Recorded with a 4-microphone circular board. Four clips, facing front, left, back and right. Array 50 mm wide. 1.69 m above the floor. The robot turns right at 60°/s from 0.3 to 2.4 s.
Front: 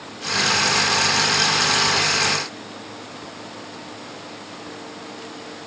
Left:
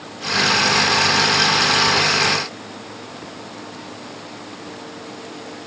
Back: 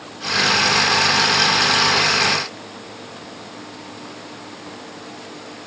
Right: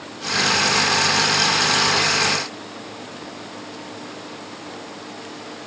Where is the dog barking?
No dog barking in this recording.